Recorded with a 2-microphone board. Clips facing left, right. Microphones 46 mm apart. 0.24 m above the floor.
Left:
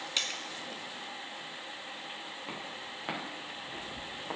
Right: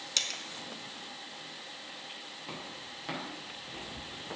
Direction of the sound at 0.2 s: 15° left (ahead or behind).